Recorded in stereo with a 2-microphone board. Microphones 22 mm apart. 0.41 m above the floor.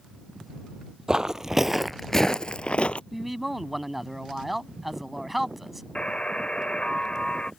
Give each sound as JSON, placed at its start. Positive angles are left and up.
{"t": 1.1, "sound": "footsteps", "side_deg": -30}
{"t": 3.1, "sound": "a man speaking", "side_deg": -5}
{"t": 6.0, "sound": "a buzzer", "side_deg": 50}